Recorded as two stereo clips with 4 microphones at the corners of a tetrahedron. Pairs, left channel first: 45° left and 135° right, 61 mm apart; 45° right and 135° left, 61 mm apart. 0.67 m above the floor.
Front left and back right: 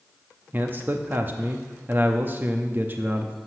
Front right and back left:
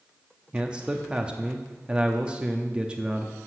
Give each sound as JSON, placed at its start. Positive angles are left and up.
{"t": 0.5, "sound": "a man speaking", "azimuth_deg": -165, "distance_m": 0.7}